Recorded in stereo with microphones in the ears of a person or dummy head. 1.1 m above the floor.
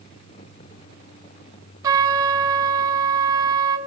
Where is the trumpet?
20° right (ahead or behind), 2 m.